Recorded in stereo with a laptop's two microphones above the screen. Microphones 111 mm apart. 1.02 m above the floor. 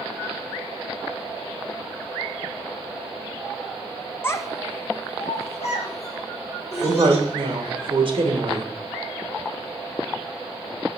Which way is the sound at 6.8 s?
50° right (ahead or behind).